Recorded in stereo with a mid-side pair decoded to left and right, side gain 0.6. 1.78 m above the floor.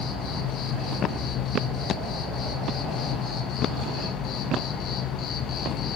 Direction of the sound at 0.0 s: 55° left.